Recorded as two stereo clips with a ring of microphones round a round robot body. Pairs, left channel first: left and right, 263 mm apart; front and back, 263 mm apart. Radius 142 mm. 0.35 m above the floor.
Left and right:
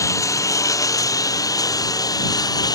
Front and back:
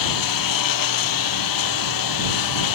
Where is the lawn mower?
10° left; by 2.8 s 15° left.